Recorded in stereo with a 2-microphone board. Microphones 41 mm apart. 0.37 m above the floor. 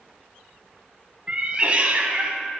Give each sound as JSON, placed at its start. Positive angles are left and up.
{"t": 1.3, "sound": "a cat meowing", "side_deg": -30, "distance_m": 0.5}